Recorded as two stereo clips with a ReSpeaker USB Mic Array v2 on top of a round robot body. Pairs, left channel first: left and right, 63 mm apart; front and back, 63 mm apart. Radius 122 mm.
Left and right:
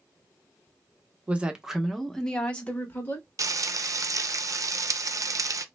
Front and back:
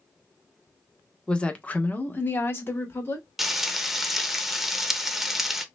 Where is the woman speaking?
55° right, 0.9 m; by 3.3 s 40° left, 1.3 m.